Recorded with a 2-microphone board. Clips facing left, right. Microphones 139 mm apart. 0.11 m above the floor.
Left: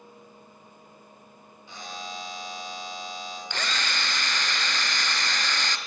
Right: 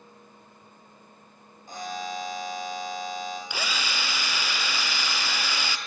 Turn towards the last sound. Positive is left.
turn(degrees=-10)  # may be behind; listen again after turning